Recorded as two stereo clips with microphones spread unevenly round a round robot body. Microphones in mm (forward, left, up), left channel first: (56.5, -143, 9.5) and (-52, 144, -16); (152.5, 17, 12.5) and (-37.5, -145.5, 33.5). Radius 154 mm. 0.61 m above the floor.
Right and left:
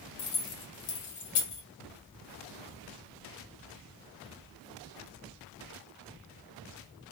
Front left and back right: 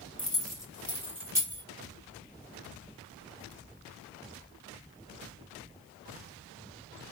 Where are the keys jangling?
45° right, 2.5 m; by 1.6 s 65° right, 1.9 m.